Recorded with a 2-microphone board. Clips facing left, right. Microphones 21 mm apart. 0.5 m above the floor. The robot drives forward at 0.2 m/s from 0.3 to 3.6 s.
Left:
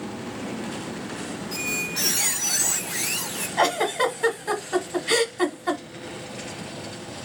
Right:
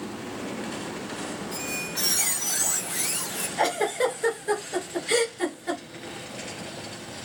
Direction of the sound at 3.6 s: 75° left (ahead or behind).